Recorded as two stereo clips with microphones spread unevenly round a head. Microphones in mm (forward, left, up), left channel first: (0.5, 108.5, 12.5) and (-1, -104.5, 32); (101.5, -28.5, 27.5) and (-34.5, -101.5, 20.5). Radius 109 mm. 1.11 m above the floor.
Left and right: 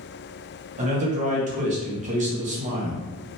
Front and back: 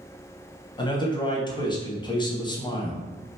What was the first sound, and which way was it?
A man speaking, 35° right.